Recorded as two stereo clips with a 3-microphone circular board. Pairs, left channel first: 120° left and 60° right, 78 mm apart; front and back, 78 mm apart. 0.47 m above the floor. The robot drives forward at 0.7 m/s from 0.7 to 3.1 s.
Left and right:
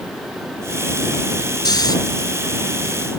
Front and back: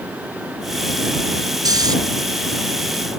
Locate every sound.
1.6 s snoring: 150° left